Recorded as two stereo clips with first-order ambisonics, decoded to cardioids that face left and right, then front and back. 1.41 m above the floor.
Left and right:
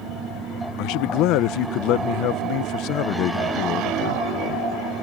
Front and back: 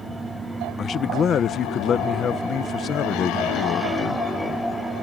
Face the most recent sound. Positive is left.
turn(degrees=60)